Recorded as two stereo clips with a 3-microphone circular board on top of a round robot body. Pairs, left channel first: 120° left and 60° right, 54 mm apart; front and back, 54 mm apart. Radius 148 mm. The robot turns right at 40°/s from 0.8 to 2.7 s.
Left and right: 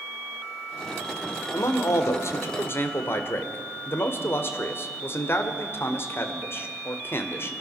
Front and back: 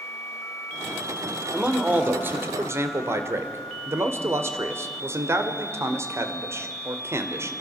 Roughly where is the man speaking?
Left.